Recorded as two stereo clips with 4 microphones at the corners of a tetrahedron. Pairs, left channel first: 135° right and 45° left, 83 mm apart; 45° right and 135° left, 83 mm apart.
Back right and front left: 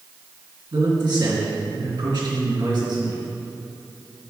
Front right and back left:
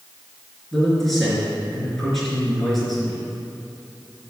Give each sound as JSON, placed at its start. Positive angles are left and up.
{"t": 0.7, "sound": "a man speaking", "azimuth_deg": 40, "distance_m": 3.0}